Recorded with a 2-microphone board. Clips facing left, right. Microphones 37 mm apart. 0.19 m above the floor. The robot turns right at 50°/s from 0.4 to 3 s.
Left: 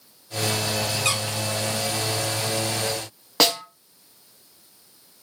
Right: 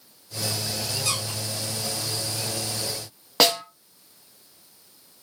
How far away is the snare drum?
About 0.7 m.